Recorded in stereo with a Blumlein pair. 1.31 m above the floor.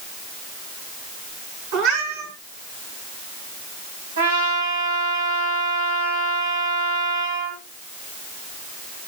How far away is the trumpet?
About 3.5 m.